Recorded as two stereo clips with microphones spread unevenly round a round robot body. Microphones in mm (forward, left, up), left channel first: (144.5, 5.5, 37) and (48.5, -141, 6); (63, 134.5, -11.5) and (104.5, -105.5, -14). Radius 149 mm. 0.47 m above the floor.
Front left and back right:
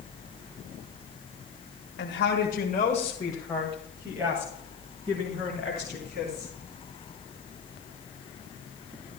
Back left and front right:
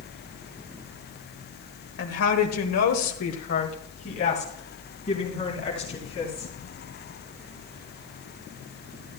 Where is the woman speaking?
85° left, 1.6 m; by 6.5 s 175° left, 4.5 m.